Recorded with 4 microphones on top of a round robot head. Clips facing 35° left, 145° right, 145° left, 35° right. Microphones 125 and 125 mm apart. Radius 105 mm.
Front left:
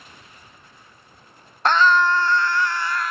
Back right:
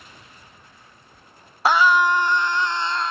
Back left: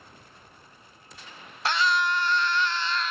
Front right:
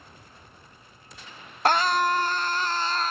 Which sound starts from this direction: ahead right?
A scream, at 1.6 s.